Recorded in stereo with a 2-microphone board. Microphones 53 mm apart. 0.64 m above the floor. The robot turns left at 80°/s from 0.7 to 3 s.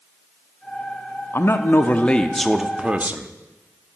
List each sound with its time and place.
1.3 s a man speaking: 90° left, 0.7 m; by 3.3 s 45° right, 0.7 m